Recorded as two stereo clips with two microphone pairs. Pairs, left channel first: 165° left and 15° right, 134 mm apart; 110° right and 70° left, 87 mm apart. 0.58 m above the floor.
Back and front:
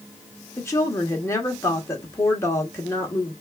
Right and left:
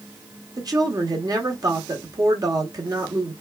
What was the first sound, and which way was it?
A woman speaking, 100° left.